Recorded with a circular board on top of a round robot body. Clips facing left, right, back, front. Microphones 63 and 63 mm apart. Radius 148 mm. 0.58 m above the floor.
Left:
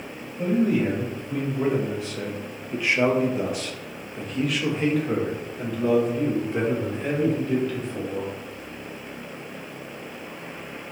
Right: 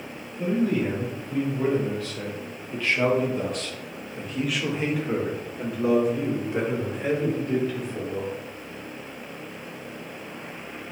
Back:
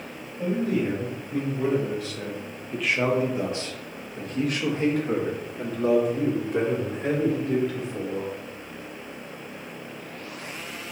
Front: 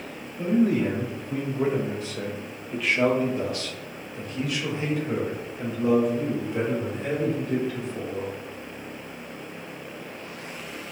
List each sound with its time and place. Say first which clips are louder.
0.4 s a man speaking: left 2 dB, front 3 dB; 25° left, 1.6 m; by 8.3 s 170° right, 3 m